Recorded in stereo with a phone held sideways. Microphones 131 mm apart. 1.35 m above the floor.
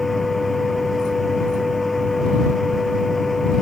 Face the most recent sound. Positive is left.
turn(degrees=0)  # may be behind; listen again after turning